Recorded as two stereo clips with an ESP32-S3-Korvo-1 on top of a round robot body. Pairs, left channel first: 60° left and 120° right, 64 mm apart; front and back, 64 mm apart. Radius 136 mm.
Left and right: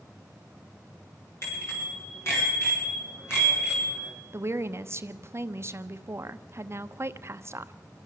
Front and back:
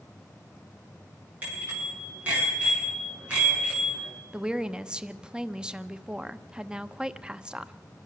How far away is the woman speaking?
About 1.0 m.